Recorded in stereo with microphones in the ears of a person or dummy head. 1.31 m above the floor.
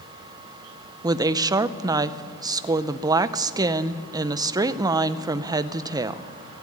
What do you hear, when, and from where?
1.0 s a woman speaking: 20° right (ahead or behind), 0.6 m